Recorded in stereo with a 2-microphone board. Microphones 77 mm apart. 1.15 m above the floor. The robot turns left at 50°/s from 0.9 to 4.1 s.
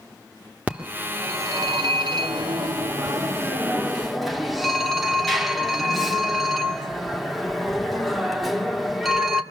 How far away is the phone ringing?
About 1.8 m.